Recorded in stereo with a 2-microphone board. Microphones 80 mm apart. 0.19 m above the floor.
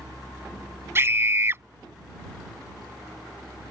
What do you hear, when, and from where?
0.9 s a scream: 30° right (ahead or behind)